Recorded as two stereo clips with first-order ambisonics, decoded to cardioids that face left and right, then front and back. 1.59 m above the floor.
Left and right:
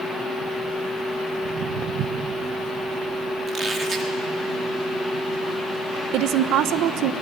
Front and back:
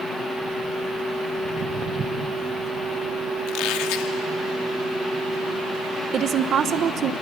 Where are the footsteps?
130° right, 2.5 m.